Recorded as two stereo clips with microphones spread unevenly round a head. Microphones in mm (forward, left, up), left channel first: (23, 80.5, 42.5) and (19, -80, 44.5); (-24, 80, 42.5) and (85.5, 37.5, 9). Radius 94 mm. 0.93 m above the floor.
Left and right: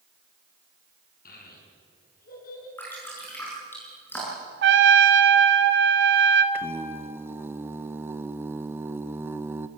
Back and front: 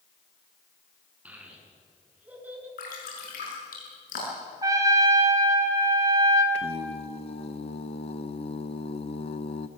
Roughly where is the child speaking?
Ahead left.